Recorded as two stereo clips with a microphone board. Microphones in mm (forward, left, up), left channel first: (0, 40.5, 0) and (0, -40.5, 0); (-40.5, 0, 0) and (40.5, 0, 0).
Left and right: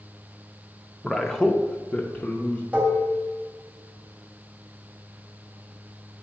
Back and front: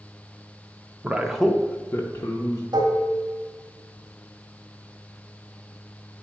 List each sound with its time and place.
1.0 s a man speaking: 5° left, 0.6 m; by 2.6 s 160° left, 1.0 m
2.7 s dishes clattering: 20° right, 1.8 m